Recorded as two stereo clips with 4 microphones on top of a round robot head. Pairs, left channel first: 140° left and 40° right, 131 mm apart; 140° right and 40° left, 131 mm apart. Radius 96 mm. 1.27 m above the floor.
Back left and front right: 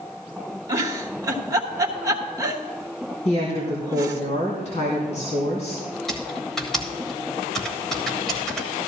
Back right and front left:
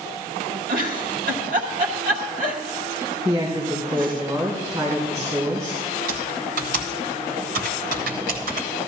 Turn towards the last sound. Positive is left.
turn(degrees=55)